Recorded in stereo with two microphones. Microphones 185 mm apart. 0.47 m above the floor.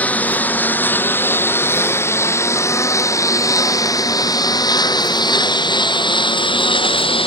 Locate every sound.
0.0 s a lawn mower: 10° left (ahead or behind); by 7.3 s 30° left (ahead or behind)